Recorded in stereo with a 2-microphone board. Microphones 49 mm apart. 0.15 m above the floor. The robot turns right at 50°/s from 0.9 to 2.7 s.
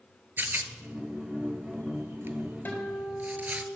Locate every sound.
0.4 s a rattle: 45° right (ahead or behind), 0.8 m; by 3.6 s 35° right (ahead or behind), 0.8 m
2.6 s a guitar: 35° left (ahead or behind), 3.5 m; by 3.7 s 40° left (ahead or behind), 3.5 m